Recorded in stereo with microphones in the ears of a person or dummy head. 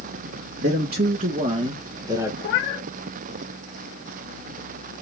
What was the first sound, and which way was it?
A man speaking, 60° right (ahead or behind).